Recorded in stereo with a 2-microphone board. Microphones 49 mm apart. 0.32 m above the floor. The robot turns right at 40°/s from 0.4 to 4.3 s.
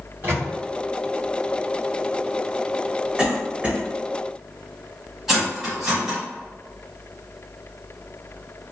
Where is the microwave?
45° right (ahead or behind), 2.0 m; by 0.5 s 50° right (ahead or behind), 2.0 m.